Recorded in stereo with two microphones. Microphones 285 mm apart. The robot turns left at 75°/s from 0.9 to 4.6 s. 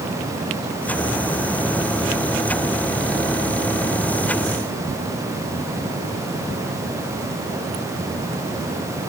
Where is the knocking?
No knocking in this recording.